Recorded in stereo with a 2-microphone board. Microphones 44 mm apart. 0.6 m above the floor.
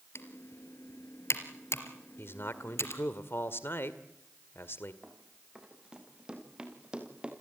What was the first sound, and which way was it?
Typing on a keyboard, 85° left.